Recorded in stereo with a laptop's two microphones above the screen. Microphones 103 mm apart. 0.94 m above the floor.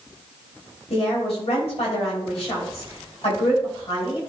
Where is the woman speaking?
75° left (ahead or behind), 4.5 m.